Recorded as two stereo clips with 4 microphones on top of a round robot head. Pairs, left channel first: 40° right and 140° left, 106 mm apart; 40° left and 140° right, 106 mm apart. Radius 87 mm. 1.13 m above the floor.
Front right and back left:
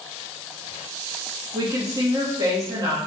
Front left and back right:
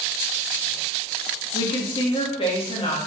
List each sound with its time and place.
1.5 s a woman speaking: 80° left, 1.6 m